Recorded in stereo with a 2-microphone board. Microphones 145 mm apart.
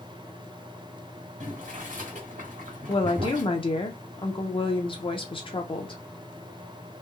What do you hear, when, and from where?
1.4 s boiling: 65° right (ahead or behind), 1.6 m
2.9 s a woman speaking: 40° left (ahead or behind), 0.8 m